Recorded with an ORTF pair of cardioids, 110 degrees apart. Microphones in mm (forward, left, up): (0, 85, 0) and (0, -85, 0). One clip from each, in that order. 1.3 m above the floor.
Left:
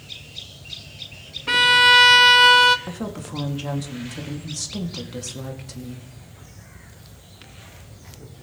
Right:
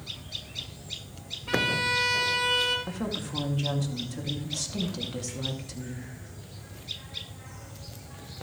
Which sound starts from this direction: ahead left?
A violin, at 1.5 s.